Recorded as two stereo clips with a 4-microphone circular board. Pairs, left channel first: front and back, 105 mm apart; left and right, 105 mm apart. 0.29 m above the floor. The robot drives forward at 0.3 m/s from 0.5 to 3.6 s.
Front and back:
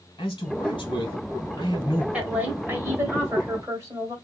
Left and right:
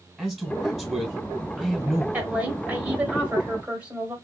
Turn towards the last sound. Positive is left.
turn(degrees=-155)